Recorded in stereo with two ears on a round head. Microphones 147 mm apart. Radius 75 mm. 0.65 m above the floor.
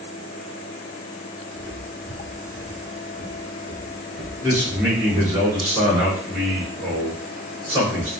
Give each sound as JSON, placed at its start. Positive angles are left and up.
{"t": 1.6, "sound": "footsteps", "side_deg": -30, "distance_m": 0.7}
{"t": 4.4, "sound": "a man speaking", "side_deg": -15, "distance_m": 1.8}